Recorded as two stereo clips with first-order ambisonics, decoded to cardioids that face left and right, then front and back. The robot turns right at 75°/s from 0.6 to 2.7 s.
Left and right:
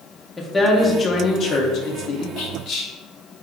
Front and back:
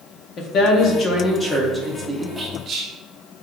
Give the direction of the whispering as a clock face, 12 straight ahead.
8 o'clock.